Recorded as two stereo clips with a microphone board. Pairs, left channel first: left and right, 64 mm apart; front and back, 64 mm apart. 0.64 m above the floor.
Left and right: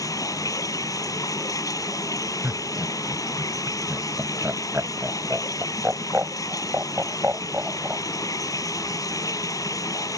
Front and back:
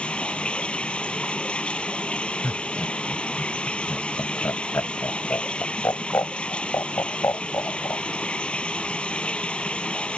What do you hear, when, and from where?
0.0 s running water: 70° left
2.4 s laughter: 40° right